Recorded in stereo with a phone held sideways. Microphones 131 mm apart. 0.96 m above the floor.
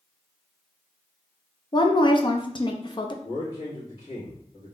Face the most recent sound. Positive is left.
turn(degrees=45)  # may be behind; listen again after turning